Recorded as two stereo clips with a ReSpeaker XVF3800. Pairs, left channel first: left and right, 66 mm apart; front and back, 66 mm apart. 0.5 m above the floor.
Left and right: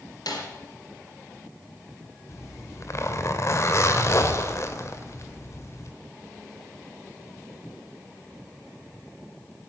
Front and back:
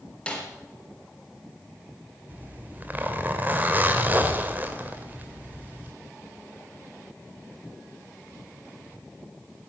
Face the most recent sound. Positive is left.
turn(degrees=120)